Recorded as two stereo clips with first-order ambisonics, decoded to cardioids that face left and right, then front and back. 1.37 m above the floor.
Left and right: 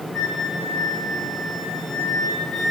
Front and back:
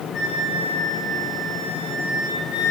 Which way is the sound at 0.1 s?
5° right.